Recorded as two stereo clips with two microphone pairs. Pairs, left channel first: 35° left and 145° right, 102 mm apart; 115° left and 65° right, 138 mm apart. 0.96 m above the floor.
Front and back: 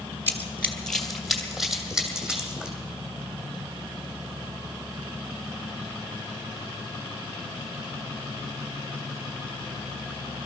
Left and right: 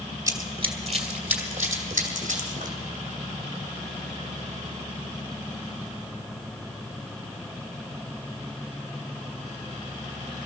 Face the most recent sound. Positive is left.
turn(degrees=-65)